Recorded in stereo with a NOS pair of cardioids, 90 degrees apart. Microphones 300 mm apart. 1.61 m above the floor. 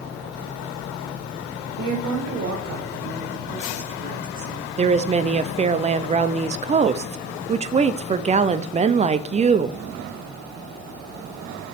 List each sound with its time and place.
1.8 s a woman speaking: 65° right, 1.5 m; by 4.7 s 45° right, 3.5 m
4.8 s a woman speaking: 20° right, 0.5 m